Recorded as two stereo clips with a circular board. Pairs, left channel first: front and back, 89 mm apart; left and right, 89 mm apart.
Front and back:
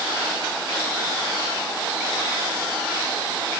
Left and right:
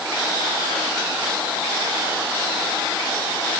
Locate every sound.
Only background noise.